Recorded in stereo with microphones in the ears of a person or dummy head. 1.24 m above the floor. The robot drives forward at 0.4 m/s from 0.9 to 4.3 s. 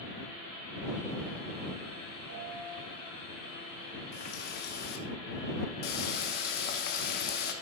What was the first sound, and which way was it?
A piano, 65° right (ahead or behind).